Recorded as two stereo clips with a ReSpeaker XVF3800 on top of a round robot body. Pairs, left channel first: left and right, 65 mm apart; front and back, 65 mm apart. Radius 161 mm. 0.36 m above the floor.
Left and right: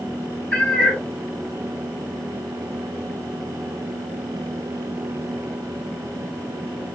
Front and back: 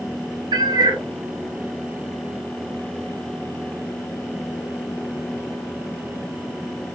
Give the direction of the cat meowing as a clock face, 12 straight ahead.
6 o'clock.